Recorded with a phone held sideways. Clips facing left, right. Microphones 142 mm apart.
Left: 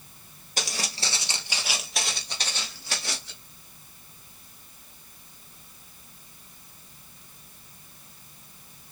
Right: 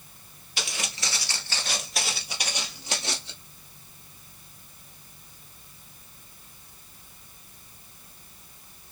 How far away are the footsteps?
About 1.3 m.